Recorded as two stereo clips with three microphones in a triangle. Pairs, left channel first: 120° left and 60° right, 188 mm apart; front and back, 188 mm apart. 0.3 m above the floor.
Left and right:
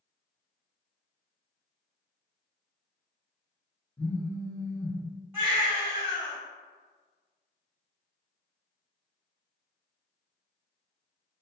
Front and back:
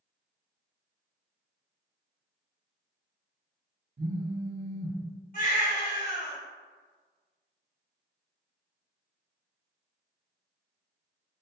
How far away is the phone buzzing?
About 0.6 m.